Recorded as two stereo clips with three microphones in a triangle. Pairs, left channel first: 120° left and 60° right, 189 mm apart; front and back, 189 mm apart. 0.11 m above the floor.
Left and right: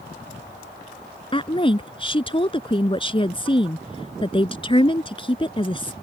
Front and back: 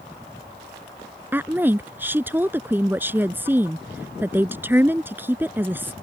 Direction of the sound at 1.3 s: 115° left.